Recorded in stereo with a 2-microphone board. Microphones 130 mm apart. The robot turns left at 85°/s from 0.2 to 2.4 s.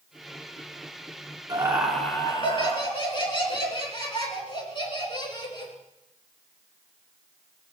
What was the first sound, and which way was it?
Laughter, 145° right.